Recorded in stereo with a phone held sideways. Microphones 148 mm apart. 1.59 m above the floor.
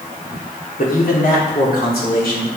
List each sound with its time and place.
0.8 s a man speaking: 65° left (ahead or behind), 4 m; by 2.5 s 80° left, 4 m